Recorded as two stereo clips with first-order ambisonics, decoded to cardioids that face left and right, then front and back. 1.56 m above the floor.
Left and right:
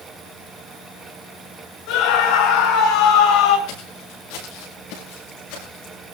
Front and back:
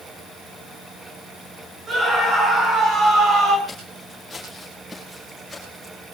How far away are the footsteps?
About 8 m.